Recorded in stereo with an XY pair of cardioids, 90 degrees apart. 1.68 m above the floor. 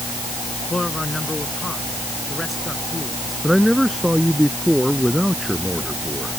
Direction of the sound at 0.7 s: 20° left.